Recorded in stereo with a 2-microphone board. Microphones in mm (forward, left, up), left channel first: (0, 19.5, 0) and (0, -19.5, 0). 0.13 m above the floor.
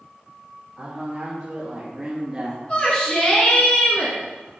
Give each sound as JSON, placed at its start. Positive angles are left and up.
{"t": 0.8, "sound": "a man speaking", "side_deg": -20, "distance_m": 3.5}
{"t": 2.7, "sound": "a shout", "side_deg": 35, "distance_m": 1.8}